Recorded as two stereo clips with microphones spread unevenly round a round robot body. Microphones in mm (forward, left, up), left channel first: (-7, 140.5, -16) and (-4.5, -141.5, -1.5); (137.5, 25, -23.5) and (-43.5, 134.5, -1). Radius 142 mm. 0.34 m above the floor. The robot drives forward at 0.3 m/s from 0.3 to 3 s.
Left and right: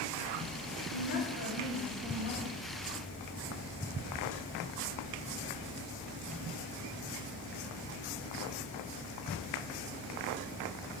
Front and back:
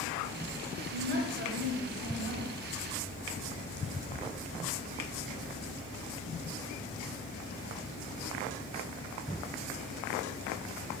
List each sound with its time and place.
0.9 s a woman speaking: 135° left, 2 m; by 2.5 s 145° left, 2.5 m